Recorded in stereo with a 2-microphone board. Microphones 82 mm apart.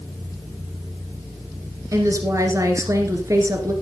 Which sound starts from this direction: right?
A woman speaking, at 1.9 s.